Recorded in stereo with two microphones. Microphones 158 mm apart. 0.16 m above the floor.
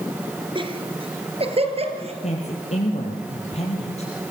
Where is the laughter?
35° right (ahead or behind), 3 m; by 2.1 s 40° right (ahead or behind), 4.5 m.